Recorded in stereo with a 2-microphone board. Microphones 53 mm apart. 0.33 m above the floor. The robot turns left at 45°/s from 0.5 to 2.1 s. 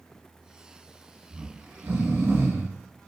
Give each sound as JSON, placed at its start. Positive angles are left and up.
{"t": 1.3, "sound": "snoring", "azimuth_deg": -45, "distance_m": 0.9}